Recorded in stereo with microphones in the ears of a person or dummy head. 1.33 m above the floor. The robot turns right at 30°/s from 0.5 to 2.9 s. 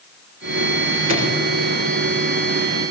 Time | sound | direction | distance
1.1 | a drawer | 40° right (ahead or behind) | 3.5 m